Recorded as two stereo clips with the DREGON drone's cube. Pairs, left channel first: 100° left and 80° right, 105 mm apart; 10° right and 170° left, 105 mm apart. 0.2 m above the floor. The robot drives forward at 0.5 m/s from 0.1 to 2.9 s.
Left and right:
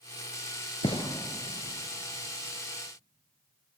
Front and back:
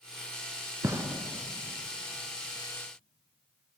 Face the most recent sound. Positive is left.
turn(degrees=145)